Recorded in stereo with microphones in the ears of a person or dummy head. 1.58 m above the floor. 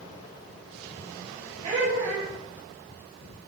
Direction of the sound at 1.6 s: 40° right (ahead or behind).